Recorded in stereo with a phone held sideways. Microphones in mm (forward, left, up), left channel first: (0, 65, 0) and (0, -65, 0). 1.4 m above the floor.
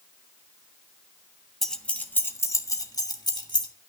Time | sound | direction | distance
1.6 | keys jangling | 5° left (ahead or behind) | 1.3 m